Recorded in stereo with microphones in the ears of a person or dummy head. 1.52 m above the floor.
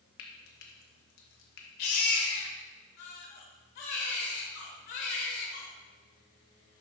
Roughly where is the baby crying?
Left.